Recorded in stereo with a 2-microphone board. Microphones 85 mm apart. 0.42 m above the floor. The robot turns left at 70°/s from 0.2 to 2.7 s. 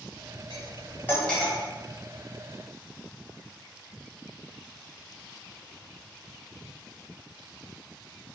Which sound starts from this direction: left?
Cutlery clinking, at 0.5 s.